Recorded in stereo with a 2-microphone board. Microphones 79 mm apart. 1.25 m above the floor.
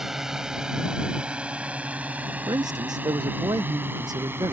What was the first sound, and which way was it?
A drone, 5° right (ahead or behind).